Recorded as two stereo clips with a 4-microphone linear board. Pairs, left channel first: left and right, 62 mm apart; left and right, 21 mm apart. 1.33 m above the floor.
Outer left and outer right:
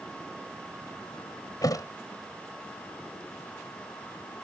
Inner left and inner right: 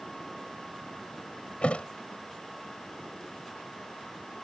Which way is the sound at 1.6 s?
80° left.